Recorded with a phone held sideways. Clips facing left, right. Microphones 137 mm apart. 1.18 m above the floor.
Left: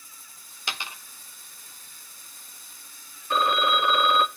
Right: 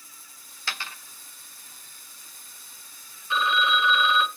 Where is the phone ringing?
45° left (ahead or behind), 0.6 m.